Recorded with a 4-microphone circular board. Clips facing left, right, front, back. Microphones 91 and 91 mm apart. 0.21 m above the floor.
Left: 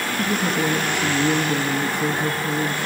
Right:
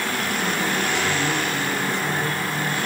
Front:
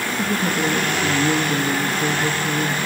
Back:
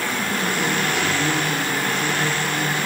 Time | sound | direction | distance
0.1 | a woman speaking | 70° left | 3 m